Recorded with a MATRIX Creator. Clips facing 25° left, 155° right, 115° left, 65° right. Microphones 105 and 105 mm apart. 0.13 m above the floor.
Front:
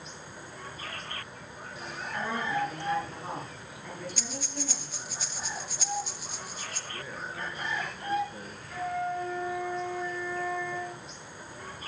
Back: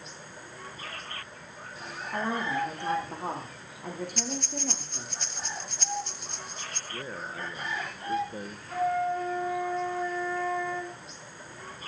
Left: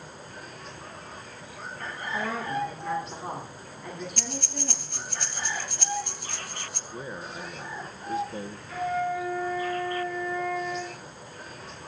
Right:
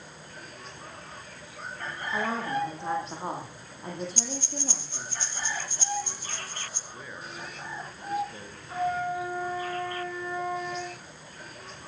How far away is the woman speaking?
About 9.5 m.